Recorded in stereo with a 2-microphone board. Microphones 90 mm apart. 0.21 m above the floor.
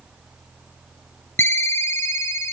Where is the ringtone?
30° left (ahead or behind), 0.9 m.